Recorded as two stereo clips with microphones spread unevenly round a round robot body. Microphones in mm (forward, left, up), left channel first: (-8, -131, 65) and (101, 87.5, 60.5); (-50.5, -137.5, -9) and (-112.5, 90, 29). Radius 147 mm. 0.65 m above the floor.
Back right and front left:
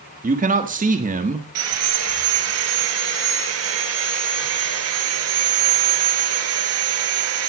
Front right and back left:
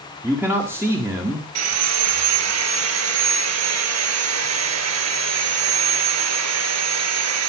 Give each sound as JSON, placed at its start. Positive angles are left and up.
{"t": 0.2, "sound": "a man speaking", "azimuth_deg": 20, "distance_m": 1.6}
{"t": 1.6, "sound": "sawing", "azimuth_deg": 100, "distance_m": 4.5}